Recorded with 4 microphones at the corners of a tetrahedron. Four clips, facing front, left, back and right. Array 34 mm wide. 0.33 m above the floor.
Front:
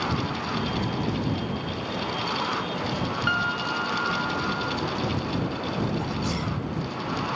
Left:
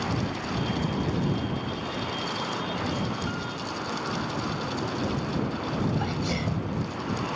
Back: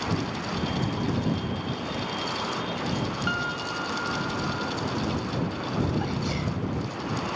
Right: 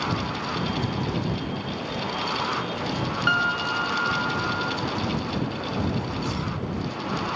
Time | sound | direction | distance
3.3 | a piano | 70° right | ?
6.0 | a sneeze | 105° left | ?